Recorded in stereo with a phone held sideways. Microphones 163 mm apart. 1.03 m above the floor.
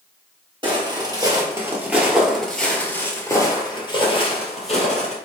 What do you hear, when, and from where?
0.6 s footsteps: 30° right (ahead or behind), 1.7 m; by 5.2 s 50° left (ahead or behind), 1.9 m